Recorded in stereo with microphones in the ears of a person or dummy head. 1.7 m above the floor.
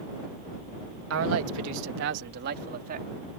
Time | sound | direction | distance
1.1 | a man speaking | 85° right | ?